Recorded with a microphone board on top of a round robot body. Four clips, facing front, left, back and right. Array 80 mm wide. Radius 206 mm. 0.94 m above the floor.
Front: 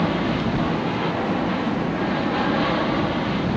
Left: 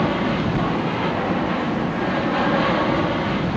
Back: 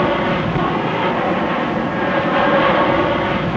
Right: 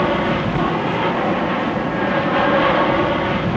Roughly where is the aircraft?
Behind right.